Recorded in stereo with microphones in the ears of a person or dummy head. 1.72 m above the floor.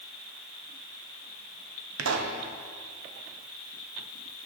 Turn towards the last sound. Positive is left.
turn(degrees=-80)